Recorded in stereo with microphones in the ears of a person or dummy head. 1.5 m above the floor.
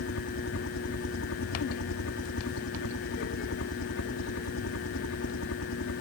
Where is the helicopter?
70° left (ahead or behind).